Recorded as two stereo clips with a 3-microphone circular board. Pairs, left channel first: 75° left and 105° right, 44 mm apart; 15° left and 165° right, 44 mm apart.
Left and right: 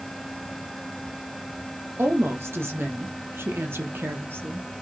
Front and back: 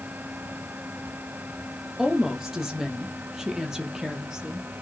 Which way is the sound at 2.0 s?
85° right.